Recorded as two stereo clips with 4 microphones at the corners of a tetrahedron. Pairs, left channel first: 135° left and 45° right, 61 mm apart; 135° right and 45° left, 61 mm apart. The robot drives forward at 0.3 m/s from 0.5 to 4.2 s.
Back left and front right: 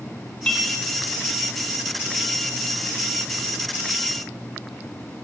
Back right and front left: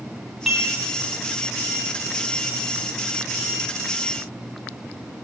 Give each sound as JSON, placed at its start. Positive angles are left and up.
{"t": 0.5, "sound": "dishes clattering", "azimuth_deg": 115, "distance_m": 0.7}